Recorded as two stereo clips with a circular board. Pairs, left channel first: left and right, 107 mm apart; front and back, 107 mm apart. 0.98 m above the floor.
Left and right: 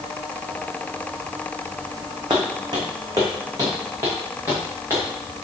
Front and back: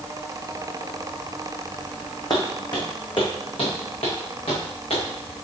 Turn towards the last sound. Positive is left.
turn(degrees=-25)